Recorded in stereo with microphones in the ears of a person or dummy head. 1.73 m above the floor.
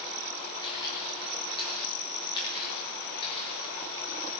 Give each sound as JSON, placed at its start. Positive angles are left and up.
{"t": 0.6, "sound": "footsteps", "side_deg": 25, "distance_m": 10.0}